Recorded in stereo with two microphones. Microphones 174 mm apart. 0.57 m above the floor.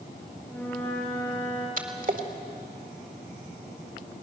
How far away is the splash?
About 1.9 m.